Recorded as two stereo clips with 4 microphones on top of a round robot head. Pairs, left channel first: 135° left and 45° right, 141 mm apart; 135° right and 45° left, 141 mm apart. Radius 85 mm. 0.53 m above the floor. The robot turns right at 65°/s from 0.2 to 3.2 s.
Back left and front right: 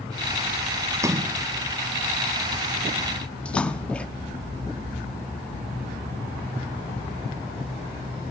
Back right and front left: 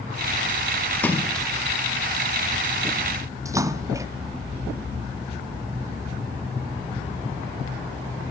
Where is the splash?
80° right, 0.7 m; by 4.1 s 65° left, 0.7 m.